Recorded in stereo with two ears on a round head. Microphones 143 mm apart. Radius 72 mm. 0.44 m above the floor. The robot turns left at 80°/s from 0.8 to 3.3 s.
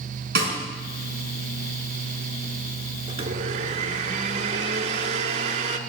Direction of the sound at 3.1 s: 25° right (ahead or behind).